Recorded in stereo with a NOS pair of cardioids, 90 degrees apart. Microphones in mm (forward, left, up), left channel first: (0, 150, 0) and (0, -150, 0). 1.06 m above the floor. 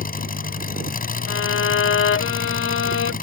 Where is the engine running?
30° left.